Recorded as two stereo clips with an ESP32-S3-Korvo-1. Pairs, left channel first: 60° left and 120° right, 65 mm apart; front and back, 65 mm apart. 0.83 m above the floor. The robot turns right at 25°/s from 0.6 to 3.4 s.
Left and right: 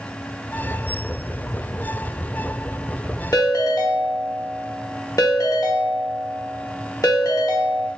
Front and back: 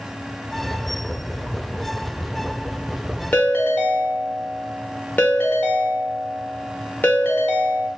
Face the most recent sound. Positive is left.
turn(degrees=60)